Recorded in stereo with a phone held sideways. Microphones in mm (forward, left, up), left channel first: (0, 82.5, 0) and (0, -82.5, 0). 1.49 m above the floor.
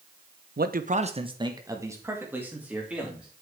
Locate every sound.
0.6 s a man speaking: 70° right (ahead or behind), 0.8 m; by 3.3 s 5° right (ahead or behind), 3.5 m